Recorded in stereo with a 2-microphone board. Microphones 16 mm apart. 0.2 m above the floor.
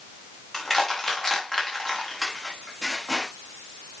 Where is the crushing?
20° left (ahead or behind), 5 m.